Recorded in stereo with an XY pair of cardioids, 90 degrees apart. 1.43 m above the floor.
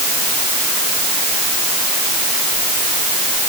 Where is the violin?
I don't hear a violin.